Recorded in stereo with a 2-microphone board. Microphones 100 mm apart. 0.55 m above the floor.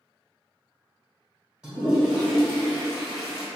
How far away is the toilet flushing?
About 1.7 m.